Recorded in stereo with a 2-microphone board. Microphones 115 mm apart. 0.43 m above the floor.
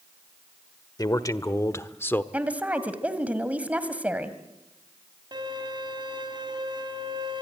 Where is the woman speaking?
15° right (ahead or behind), 2 m.